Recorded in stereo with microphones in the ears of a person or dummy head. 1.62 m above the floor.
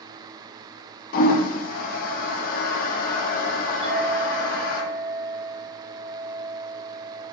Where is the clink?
45° right (ahead or behind), 1.0 m.